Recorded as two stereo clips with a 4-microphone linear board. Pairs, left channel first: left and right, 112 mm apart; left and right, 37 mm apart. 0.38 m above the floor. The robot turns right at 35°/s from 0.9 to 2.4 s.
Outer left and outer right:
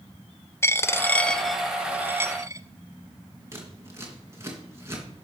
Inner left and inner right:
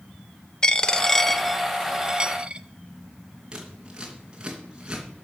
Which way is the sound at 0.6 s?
25° left (ahead or behind).